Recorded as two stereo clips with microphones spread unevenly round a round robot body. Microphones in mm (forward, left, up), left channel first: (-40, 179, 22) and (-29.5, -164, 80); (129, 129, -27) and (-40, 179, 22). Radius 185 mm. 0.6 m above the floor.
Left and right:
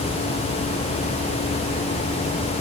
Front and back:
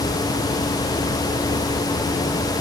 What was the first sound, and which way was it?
Only background noise.